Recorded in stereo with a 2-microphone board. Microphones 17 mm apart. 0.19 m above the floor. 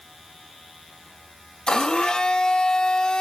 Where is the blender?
60° left (ahead or behind), 2.5 m.